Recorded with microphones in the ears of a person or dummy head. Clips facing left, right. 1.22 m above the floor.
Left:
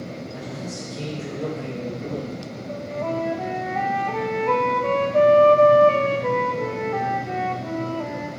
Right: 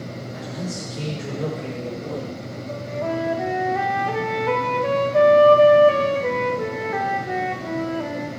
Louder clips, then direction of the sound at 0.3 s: Right 2 dB; 10° right (ahead or behind).